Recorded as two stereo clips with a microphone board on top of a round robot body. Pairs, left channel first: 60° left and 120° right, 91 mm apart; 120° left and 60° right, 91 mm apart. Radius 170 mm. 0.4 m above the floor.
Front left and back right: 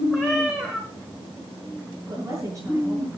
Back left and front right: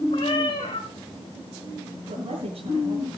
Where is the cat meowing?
150° left, 4 m.